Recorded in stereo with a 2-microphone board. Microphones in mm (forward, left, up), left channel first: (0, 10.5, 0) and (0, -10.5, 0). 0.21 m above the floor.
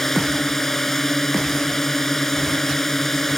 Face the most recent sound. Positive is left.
turn(degrees=15)  # may be behind; listen again after turning